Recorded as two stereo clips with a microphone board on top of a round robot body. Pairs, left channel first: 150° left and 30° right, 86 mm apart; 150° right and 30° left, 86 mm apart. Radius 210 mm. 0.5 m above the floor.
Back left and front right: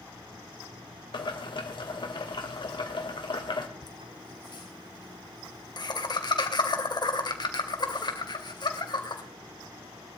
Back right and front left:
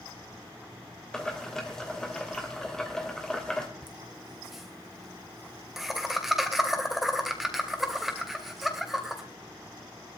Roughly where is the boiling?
Behind left.